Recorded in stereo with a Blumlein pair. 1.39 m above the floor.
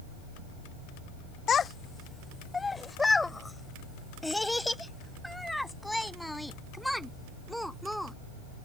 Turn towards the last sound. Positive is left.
turn(degrees=0)